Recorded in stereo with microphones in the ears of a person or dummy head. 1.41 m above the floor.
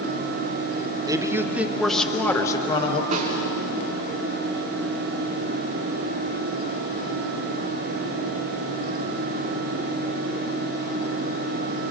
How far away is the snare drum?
About 5.5 m.